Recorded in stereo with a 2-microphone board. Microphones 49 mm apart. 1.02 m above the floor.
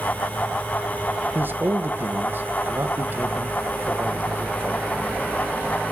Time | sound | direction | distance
1.4 | a man speaking | 45° right (ahead or behind) | 1.0 m